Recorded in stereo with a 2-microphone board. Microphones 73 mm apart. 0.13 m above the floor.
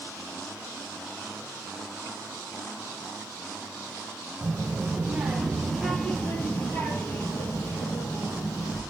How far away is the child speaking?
About 2.5 m.